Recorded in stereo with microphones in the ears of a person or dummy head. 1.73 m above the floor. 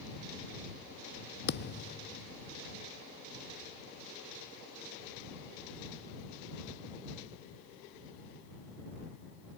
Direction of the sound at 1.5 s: 55° left (ahead or behind).